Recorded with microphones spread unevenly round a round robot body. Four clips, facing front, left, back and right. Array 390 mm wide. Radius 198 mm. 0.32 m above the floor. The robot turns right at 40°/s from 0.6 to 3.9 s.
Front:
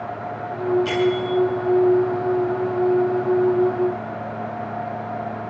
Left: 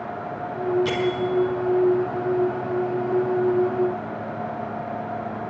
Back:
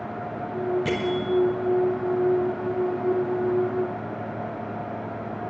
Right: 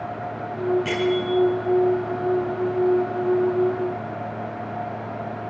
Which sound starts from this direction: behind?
A bell, at 0.8 s.